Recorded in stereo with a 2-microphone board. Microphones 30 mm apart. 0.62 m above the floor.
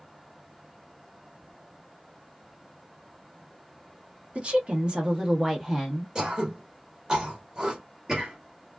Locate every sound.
4.3 s a woman speaking: 40° right (ahead or behind), 1.1 m; by 6.0 s centre (ahead or behind), 1.0 m
6.2 s throat clearing: 20° right (ahead or behind), 1.2 m